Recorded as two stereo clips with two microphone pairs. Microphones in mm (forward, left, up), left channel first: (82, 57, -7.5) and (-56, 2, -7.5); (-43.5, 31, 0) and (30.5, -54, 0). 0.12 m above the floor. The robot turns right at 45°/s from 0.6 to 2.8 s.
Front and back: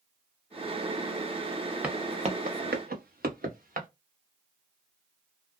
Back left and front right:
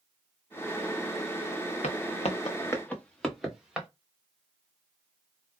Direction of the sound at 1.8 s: 115° left.